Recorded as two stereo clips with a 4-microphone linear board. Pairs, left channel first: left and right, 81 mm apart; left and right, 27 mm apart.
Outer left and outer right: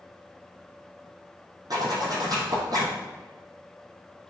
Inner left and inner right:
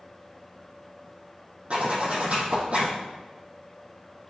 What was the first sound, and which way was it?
A zipper, 55° right (ahead or behind).